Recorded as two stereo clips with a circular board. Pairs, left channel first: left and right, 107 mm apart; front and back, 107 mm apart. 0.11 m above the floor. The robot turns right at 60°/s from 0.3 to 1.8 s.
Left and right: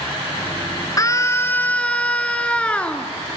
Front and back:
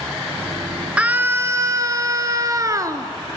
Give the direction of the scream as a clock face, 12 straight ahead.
8 o'clock.